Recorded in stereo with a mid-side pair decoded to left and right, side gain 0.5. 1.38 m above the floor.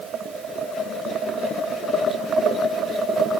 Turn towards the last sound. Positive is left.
No sound to turn to.